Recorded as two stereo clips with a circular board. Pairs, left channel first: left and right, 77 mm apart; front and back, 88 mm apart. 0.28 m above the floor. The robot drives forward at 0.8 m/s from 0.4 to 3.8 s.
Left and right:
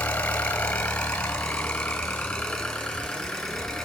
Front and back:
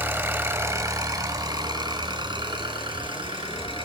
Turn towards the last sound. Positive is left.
turn(degrees=175)